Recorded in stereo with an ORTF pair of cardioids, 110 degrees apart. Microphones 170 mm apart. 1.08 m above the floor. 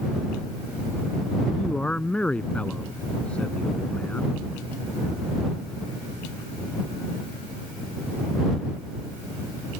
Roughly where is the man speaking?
Ahead.